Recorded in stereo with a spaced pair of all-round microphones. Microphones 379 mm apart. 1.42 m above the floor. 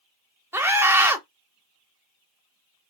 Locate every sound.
0.5 s a scream: 5° right (ahead or behind), 0.7 m